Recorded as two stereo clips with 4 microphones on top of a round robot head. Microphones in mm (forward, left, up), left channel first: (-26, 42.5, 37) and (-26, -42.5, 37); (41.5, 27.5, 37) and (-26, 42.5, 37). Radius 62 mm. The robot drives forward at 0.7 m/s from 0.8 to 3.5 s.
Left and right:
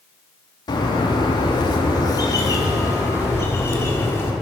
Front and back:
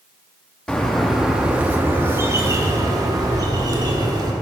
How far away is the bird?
About 1.2 m.